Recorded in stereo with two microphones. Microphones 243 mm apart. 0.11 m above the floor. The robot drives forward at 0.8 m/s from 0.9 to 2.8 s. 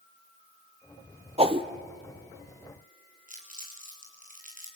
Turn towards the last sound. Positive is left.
turn(degrees=-30)  # may be behind; listen again after turning